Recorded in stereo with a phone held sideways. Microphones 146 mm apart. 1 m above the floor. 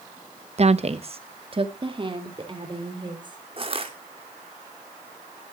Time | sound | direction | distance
0.6 | a woman speaking | 45° right (ahead or behind) | 0.7 m
3.6 | crushing | 40° right (ahead or behind) | 1.8 m